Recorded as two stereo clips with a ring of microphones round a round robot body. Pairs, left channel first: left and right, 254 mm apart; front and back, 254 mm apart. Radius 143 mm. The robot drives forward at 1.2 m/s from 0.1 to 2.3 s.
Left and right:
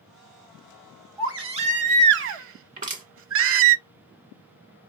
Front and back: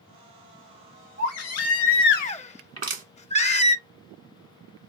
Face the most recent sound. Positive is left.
turn(degrees=-150)